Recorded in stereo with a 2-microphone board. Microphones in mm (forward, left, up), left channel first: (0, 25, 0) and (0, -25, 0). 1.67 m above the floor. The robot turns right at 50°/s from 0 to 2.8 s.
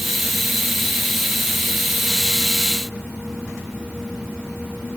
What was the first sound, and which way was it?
Only background noise.